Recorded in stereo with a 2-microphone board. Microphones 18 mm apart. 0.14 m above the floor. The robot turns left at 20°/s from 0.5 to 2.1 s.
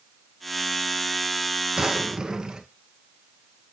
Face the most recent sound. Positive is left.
turn(degrees=-35)  # may be behind; listen again after turning